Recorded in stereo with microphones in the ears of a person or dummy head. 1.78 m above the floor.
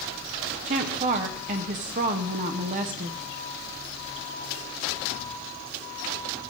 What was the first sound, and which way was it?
A woman speaking, 30° right (ahead or behind).